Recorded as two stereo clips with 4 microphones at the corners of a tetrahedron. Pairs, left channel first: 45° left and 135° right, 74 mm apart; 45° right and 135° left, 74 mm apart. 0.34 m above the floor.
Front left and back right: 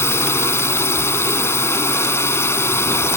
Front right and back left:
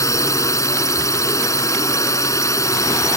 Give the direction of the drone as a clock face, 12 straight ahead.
12 o'clock.